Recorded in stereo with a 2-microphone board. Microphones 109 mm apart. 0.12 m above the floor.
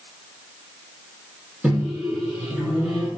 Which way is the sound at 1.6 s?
10° right (ahead or behind).